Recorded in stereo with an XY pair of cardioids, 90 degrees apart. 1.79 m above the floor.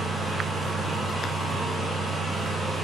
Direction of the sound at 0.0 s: 30° right.